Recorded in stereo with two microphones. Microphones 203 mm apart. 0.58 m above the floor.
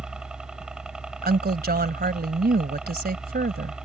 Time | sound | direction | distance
0.0 | a helicopter | 5° right (ahead or behind) | ?
1.2 | a woman speaking | 50° right (ahead or behind) | ?